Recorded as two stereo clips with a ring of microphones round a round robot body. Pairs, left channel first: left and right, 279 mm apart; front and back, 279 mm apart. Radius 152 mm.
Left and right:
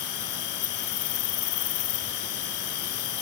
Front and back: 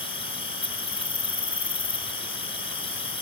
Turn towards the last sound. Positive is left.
turn(degrees=70)